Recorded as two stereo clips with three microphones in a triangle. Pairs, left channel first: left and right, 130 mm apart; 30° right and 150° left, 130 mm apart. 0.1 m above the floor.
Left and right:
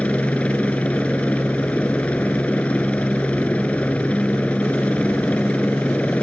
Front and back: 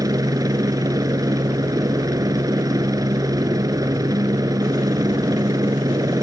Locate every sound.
0.0 s a helicopter: 160° left